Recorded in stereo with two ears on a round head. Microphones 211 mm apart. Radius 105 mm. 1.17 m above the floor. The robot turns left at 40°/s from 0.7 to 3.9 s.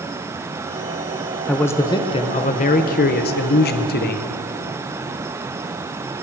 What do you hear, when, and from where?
1.5 s a man speaking: 175° left, 0.8 m; by 4.3 s 75° left, 0.8 m